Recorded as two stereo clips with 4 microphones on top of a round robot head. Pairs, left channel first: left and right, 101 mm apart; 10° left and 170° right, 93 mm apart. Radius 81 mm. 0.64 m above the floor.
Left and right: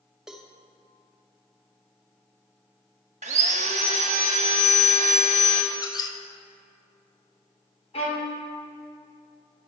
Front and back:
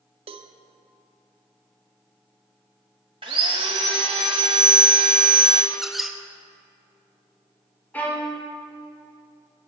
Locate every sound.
0.3 s a cowbell: 175° right, 0.6 m
3.2 s sawing: 115° right, 0.6 m
5.7 s a squeak: 100° left, 0.7 m
7.9 s a violin: 80° left, 2.5 m